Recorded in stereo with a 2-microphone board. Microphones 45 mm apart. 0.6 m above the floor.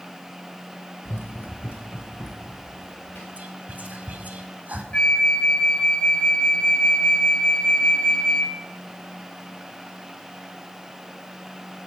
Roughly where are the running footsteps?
Left.